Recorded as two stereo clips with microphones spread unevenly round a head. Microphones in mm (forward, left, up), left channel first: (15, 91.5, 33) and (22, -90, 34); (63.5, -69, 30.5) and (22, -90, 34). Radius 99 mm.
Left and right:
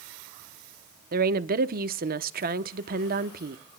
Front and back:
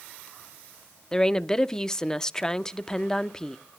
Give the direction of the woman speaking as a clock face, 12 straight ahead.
2 o'clock.